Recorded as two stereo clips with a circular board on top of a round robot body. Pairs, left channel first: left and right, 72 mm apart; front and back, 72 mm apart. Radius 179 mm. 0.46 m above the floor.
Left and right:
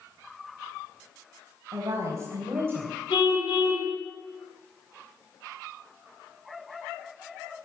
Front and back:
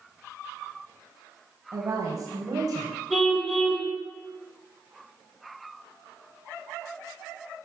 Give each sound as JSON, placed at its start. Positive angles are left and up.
{"t": 1.7, "sound": "a woman speaking", "azimuth_deg": -135, "distance_m": 4.0}
{"t": 3.1, "sound": "a car horn", "azimuth_deg": 90, "distance_m": 9.5}